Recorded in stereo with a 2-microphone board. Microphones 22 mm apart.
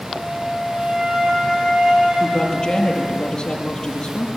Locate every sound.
0.1 s a flute: 45° right (ahead or behind), 6.5 m
2.2 s a woman speaking: 30° left (ahead or behind), 7.5 m